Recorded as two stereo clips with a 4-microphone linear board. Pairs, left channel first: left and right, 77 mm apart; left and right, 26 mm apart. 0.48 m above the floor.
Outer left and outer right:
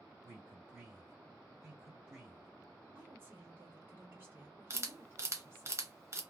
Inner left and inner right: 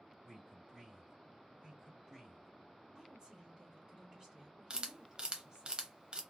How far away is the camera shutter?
About 0.6 m.